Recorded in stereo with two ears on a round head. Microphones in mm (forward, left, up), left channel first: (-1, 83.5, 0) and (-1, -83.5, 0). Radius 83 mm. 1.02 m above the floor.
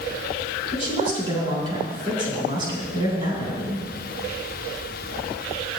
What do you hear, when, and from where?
0.7 s a woman speaking: 45° right (ahead or behind), 4 m